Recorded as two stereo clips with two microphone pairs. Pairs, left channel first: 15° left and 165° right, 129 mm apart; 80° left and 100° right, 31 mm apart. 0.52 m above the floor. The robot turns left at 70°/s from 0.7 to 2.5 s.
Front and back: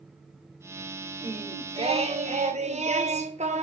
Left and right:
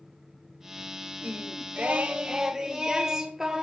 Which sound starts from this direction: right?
Singing, at 1.2 s.